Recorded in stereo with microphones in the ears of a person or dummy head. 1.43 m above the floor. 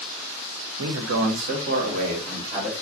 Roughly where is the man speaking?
Right.